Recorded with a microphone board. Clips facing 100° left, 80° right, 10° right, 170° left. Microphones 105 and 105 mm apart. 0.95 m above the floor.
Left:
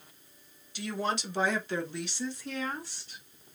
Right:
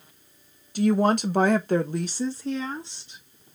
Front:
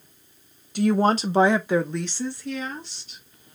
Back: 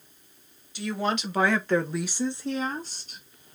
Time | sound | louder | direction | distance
0.8 | a woman speaking | right 12 dB, front 8 dB | 45° right | 1.0 m